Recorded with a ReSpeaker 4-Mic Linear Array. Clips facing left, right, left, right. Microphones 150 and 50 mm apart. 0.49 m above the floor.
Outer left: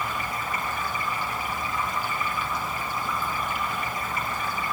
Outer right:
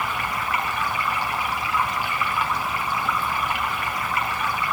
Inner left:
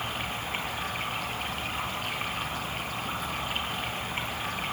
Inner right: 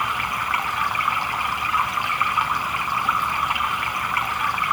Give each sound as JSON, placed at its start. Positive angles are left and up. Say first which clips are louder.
{"t": 0.0, "sound": "running water", "louder": "outer right 3 dB, inner right 10 dB", "side_deg": -80, "distance_m": 2.5}